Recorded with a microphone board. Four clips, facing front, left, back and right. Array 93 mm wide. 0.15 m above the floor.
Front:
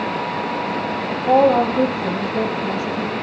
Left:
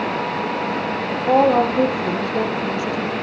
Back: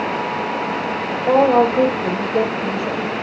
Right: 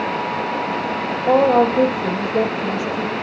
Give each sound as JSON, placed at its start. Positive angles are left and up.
{"t": 1.3, "sound": "a woman speaking", "azimuth_deg": -150, "distance_m": 7.5}